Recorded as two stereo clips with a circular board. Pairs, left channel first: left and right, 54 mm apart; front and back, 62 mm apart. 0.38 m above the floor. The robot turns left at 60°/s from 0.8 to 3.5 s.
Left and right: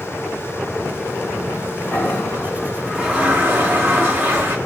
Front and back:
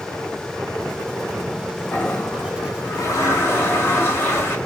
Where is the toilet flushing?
50° left, 0.8 m; by 4.5 s 45° right, 0.8 m.